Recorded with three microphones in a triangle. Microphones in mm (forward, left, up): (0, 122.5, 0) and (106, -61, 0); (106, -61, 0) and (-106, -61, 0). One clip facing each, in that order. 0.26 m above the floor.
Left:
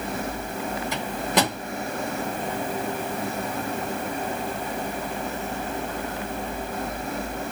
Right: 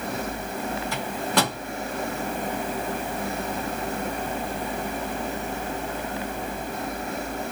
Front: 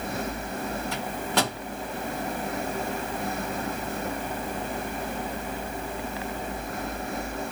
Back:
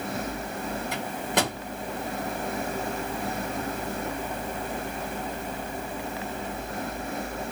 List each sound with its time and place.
0.9 s a microwave: 145° left, 1.2 m